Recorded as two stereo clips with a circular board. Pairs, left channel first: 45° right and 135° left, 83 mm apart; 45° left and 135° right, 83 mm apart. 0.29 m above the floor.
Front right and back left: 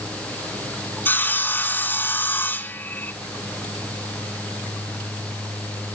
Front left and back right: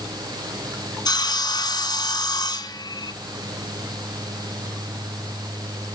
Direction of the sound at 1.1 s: 20° left.